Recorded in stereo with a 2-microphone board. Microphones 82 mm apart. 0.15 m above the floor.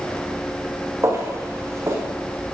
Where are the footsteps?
35° right (ahead or behind), 3.5 m.